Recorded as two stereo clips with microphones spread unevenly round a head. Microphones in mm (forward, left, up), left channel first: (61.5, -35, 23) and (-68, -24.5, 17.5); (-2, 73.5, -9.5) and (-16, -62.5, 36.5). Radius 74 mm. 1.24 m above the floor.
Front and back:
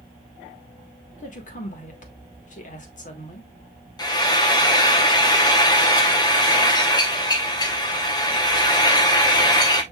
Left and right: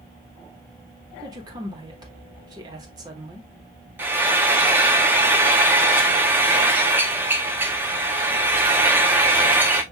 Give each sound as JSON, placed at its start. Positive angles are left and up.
{"t": 1.2, "sound": "a woman speaking", "azimuth_deg": -30, "distance_m": 1.5}
{"t": 4.0, "sound": "frying", "azimuth_deg": -50, "distance_m": 0.8}